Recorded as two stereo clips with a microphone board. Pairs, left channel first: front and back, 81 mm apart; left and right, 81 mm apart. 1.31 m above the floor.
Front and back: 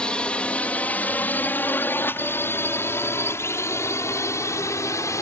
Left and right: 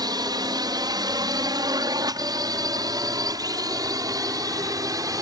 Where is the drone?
75° right; by 5.2 s 50° right.